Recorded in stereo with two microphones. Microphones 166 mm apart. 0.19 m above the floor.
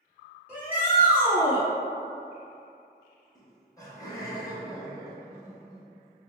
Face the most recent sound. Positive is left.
turn(degrees=20)  # may be behind; listen again after turning